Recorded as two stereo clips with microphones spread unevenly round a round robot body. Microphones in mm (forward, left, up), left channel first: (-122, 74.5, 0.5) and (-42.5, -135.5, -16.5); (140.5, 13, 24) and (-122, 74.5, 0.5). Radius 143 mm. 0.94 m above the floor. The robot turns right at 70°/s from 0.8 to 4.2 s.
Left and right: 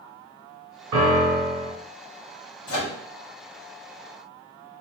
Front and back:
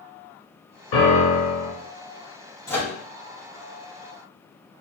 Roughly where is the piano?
Ahead right.